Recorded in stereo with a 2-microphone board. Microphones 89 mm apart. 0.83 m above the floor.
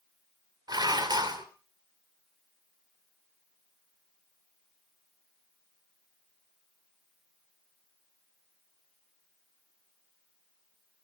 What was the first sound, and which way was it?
Dishes clattering, 50° right (ahead or behind).